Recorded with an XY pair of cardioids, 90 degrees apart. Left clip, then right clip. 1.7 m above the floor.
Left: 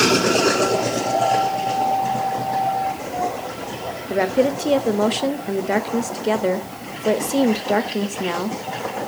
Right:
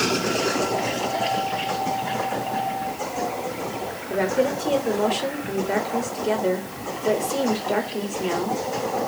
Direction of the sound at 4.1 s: 45° left.